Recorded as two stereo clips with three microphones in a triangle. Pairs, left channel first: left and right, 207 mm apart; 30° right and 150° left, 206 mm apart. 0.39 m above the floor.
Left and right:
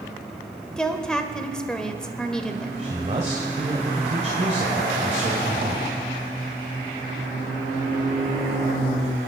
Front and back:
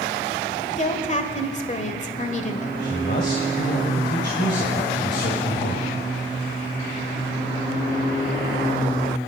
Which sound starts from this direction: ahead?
A woman speaking, at 0.8 s.